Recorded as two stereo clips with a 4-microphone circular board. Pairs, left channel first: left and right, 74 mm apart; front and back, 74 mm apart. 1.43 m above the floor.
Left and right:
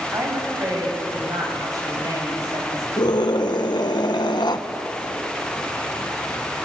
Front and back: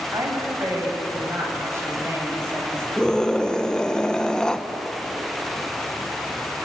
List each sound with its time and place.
0.1 s a woman speaking: 135° right, 7 m; by 2.9 s 120° right, 8 m
3.0 s a scream: 80° left, 1.5 m